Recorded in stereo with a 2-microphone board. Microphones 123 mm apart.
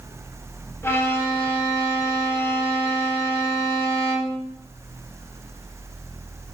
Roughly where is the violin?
Centre.